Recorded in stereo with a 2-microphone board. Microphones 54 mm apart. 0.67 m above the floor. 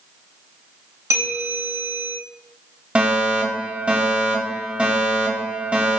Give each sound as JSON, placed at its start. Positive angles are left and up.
{"t": 1.1, "sound": "a bell", "side_deg": -65, "distance_m": 4.0}
{"t": 3.0, "sound": "a fire alarm", "side_deg": -25, "distance_m": 3.0}